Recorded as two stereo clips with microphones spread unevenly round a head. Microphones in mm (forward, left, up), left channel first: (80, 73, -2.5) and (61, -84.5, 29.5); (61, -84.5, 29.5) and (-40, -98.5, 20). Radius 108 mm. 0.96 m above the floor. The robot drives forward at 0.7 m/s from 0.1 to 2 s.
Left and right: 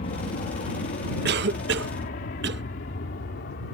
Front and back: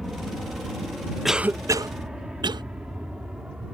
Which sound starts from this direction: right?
A cough, at 1.2 s.